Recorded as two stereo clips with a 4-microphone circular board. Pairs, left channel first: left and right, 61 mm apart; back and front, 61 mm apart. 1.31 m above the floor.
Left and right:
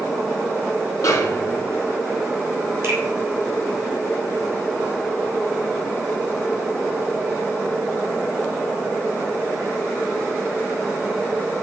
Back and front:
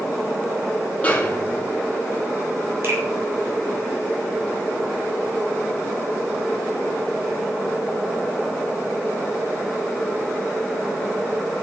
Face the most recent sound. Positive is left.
turn(degrees=-40)